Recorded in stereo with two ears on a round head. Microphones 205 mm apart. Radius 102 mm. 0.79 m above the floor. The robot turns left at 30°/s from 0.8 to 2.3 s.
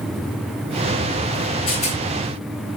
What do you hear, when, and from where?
1.7 s a rattle: 25° left (ahead or behind), 7.5 m; by 2.0 s 35° left (ahead or behind), 7.5 m